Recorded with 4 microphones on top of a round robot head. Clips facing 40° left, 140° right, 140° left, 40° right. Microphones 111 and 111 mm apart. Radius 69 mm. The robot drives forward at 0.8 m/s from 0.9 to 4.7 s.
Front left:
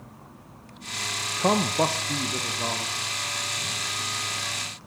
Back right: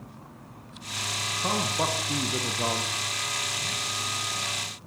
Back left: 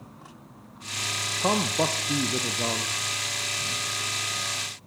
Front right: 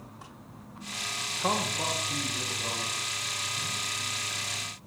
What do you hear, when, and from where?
1.4 s a man speaking: 70° left, 0.6 m; by 2.9 s 150° left, 1.2 m